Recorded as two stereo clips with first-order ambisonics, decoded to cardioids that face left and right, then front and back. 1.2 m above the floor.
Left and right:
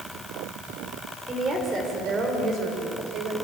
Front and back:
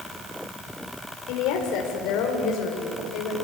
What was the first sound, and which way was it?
A woman speaking, 20° right.